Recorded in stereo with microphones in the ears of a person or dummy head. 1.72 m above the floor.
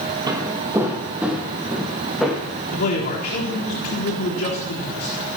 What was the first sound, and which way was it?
Footsteps, 25° right (ahead or behind).